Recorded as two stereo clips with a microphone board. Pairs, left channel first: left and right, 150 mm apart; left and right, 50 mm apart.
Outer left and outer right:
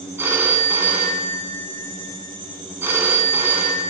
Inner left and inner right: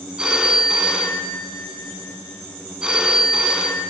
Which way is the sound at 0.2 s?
15° right (ahead or behind).